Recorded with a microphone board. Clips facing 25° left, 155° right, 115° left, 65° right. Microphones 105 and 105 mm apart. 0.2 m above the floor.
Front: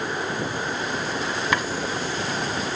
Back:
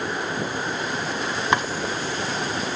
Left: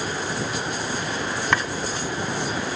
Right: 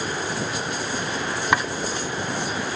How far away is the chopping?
About 1.2 m.